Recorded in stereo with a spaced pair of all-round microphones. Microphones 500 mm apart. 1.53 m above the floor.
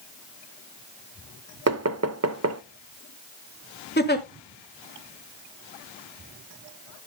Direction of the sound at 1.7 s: 30° right (ahead or behind).